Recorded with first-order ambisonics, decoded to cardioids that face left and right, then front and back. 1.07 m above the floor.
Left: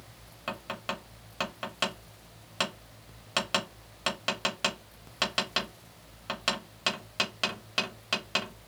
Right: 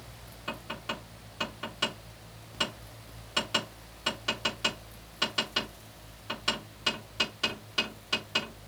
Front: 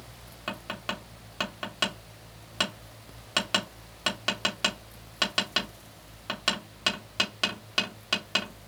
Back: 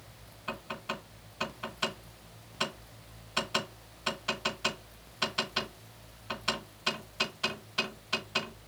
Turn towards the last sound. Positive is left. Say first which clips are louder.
# left 1 dB, front 3 dB
turn(degrees=30)